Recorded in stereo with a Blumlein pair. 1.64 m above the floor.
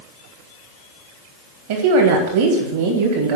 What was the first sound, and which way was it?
A woman speaking, 55° right.